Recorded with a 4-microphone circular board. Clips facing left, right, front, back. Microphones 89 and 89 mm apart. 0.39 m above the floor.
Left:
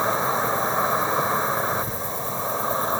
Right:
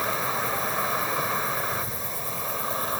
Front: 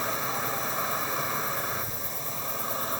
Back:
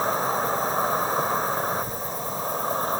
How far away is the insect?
About 0.9 m.